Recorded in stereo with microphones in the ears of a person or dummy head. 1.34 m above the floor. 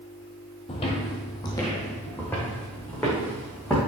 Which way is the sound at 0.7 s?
30° left (ahead or behind).